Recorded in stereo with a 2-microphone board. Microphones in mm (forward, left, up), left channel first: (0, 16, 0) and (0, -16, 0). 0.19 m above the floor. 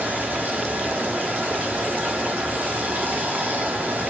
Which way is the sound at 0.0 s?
75° right (ahead or behind).